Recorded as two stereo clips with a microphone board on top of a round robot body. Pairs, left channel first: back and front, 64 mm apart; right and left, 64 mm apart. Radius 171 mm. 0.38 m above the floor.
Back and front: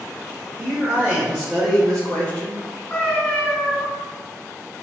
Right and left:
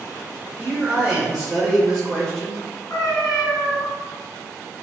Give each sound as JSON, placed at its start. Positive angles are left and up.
{"t": 0.6, "sound": "a man speaking", "azimuth_deg": 25, "distance_m": 1.5}
{"t": 2.9, "sound": "a cat meowing", "azimuth_deg": -110, "distance_m": 1.6}